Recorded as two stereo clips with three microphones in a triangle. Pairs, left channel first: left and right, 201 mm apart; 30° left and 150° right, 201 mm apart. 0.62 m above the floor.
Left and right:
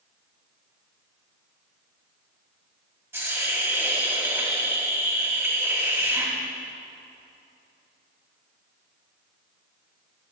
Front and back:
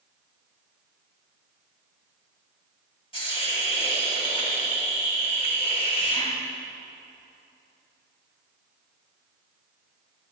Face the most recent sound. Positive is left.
turn(degrees=-20)